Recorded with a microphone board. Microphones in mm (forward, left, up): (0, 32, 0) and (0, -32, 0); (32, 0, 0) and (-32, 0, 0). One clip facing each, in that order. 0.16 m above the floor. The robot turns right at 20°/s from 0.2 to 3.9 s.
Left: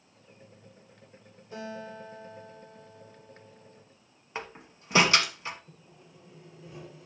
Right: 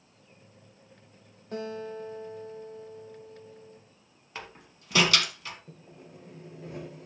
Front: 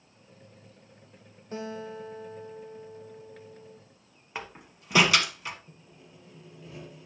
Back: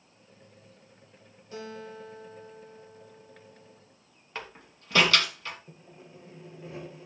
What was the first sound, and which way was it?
A guitar, 55° right.